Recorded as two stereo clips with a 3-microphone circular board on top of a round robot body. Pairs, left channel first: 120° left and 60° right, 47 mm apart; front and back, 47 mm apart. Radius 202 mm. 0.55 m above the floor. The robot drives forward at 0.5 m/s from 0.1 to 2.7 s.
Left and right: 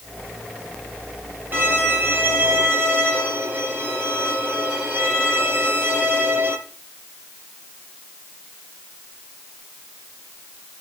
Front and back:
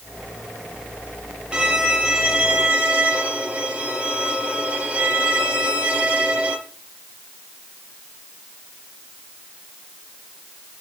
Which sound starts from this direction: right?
A violin, at 1.5 s.